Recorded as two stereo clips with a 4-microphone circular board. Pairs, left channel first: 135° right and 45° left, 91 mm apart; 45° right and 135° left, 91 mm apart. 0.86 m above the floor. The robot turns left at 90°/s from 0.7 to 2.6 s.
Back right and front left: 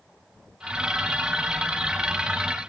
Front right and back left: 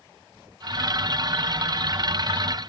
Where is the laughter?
No laughter in this recording.